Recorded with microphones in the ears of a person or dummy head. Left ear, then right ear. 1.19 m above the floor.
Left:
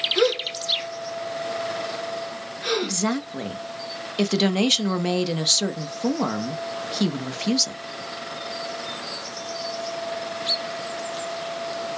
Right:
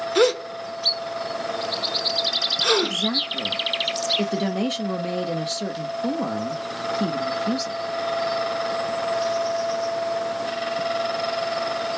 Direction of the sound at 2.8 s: 30° left (ahead or behind).